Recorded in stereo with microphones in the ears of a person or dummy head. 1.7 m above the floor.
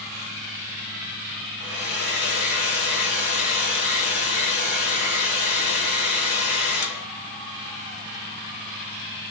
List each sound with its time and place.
1.6 s a hair dryer: 70° left (ahead or behind), 0.9 m